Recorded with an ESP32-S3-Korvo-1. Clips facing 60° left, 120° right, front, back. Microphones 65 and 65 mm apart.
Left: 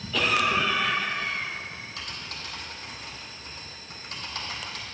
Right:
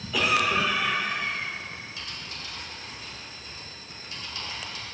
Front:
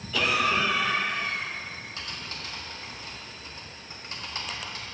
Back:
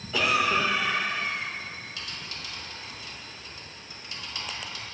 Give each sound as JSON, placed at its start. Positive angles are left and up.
{"t": 0.1, "sound": "a cough", "azimuth_deg": 180, "distance_m": 1.5}
{"t": 2.0, "sound": "typing on a keyboard", "azimuth_deg": 45, "distance_m": 1.6}